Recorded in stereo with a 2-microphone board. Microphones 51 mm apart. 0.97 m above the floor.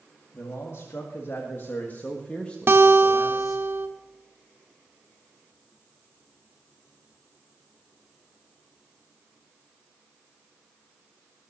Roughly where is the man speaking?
Left.